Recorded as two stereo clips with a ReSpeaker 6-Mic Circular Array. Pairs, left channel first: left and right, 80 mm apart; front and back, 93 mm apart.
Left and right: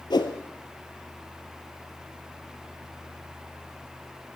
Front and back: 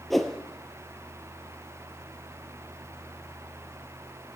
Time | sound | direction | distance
0.1 | a whoosh | 90° left | 0.9 m